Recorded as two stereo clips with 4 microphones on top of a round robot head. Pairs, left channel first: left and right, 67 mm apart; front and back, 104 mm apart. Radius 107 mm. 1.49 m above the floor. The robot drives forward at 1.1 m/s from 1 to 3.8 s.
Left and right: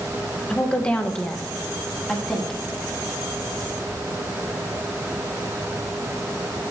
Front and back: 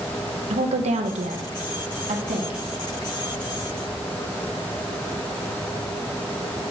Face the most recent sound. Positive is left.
turn(degrees=175)